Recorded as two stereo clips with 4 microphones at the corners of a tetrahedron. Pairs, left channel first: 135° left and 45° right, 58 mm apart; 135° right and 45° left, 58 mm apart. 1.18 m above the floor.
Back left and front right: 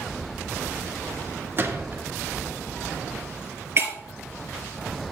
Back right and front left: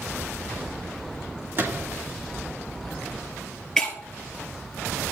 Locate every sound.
1.6 s a gunshot: straight ahead, 1.8 m
3.8 s breaking glass: 60° right, 1.6 m